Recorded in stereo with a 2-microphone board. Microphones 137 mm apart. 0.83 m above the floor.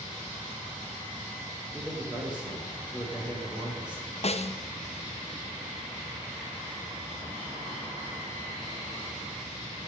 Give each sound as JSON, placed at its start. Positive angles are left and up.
{"t": 1.7, "sound": "a man speaking", "side_deg": -10, "distance_m": 3.5}
{"t": 4.2, "sound": "a snare drum", "side_deg": 50, "distance_m": 0.5}